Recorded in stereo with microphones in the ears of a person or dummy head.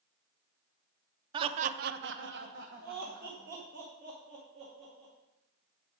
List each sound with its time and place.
1.3 s laughter: 25° right (ahead or behind), 0.6 m; by 5.1 s 35° right (ahead or behind), 2.5 m